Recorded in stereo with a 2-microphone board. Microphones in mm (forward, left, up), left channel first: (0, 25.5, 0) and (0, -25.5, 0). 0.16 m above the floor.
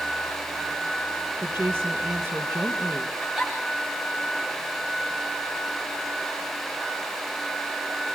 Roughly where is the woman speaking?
Right.